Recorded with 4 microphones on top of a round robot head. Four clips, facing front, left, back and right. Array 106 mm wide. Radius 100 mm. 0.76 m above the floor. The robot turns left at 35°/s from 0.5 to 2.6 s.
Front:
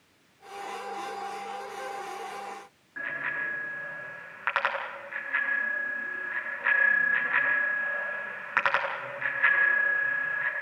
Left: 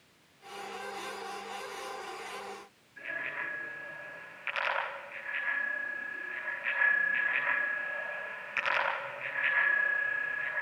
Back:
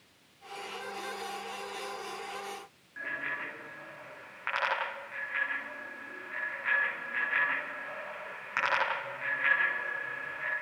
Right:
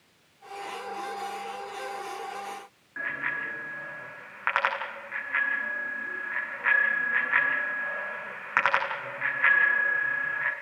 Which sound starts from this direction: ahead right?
A bicycle bell, at 3.0 s.